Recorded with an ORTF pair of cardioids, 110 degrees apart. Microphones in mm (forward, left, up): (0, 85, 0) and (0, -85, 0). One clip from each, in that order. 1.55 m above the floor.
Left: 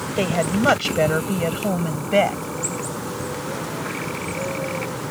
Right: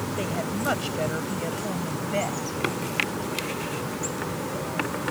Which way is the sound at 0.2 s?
50° left.